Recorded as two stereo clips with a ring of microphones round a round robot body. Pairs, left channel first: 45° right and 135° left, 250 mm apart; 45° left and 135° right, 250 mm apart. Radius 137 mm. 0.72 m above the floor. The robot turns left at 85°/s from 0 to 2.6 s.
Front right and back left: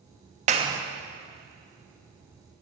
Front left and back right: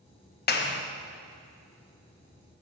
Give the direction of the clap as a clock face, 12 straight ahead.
9 o'clock.